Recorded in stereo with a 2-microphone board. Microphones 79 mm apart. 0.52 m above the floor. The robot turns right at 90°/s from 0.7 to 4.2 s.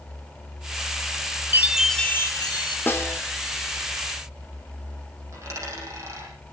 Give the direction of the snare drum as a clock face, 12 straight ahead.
11 o'clock.